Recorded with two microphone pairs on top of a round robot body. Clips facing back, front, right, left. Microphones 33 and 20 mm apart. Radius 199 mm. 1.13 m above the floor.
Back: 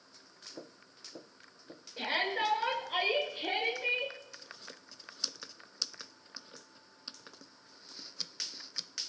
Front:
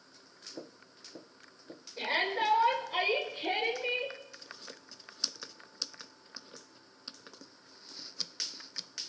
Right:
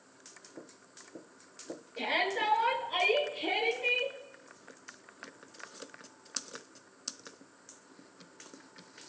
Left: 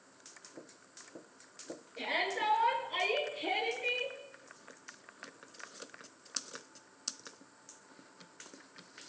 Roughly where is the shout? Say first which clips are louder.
Front 1 dB, right 3 dB; behind right.